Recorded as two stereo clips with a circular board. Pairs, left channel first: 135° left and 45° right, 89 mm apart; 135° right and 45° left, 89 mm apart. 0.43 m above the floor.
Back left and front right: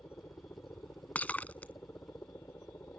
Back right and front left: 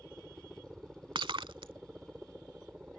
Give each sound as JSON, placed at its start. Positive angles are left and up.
{"t": 0.0, "sound": "a helicopter", "azimuth_deg": 110}
{"t": 1.1, "sound": "breaking glass", "azimuth_deg": 65}